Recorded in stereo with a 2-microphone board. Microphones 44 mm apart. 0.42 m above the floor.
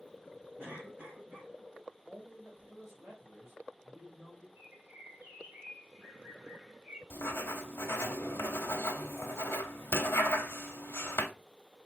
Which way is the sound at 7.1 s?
75° left (ahead or behind).